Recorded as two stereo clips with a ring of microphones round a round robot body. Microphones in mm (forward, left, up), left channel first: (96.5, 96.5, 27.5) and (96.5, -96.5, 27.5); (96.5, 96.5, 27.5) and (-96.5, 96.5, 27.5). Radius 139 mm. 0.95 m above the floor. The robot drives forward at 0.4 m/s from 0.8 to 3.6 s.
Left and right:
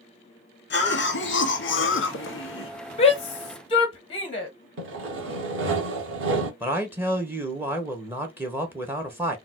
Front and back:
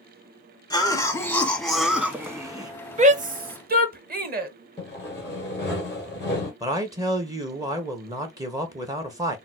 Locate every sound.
0.7 s a cough: 70° left, 1.2 m; by 2.7 s 110° left, 1.2 m
3.0 s a shout: 140° left, 0.8 m; by 4.5 s 150° left, 0.9 m
4.8 s sawing: 80° right, 0.9 m
6.6 s a man speaking: 150° right, 0.7 m